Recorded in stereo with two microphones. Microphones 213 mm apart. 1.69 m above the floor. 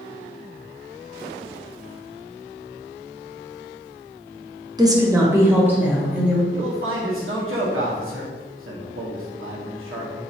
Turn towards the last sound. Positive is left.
turn(degrees=-75)  # may be behind; listen again after turning